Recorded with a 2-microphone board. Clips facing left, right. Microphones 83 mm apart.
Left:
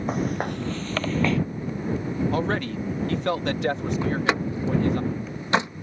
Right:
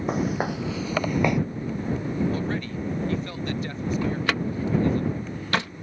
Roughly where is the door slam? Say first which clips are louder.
Left 3 dB; left.